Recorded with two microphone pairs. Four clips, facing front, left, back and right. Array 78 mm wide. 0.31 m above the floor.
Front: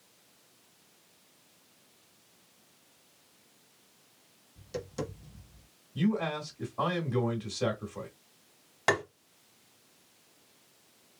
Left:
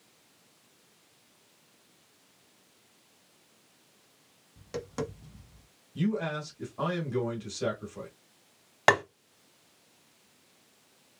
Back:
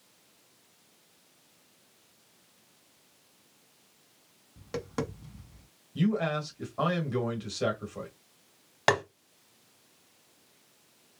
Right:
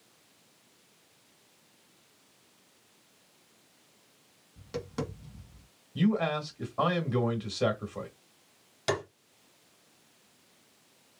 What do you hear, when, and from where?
4.6 s tapping: straight behind, 1.2 m
6.0 s a man speaking: 100° right, 1.6 m
8.9 s tapping: 110° left, 1.0 m